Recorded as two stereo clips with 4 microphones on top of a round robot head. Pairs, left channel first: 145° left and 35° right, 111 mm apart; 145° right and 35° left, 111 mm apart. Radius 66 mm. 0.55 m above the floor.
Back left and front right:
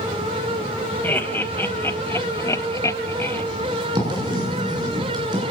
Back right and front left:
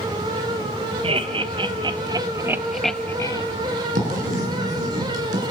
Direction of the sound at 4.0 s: 20° left.